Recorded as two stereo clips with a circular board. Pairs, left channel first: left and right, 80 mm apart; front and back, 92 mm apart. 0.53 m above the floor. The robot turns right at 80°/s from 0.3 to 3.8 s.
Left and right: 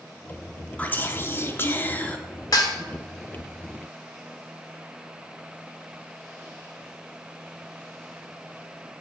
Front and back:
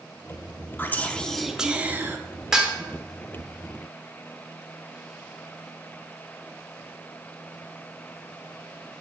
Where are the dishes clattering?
100° left, 1.0 m; by 2.7 s 115° left, 1.0 m.